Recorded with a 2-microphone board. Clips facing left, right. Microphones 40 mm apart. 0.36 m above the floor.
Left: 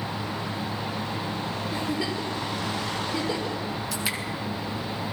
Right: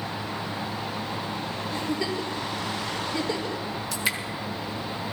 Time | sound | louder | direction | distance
1.7 | a giggle | right 1 dB | 15° left (ahead or behind) | 5 m
3.9 | dripping | right 4 dB | centre (ahead or behind) | 2.5 m